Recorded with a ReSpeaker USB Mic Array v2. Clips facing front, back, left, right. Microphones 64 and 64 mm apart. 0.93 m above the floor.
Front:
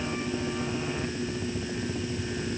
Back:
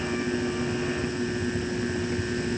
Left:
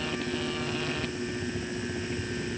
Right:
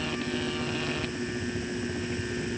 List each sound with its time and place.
Only background noise.